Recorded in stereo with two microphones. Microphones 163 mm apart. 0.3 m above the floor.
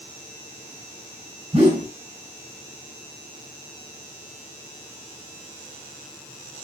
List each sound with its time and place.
1.5 s a whoosh: 35° right (ahead or behind), 1.9 m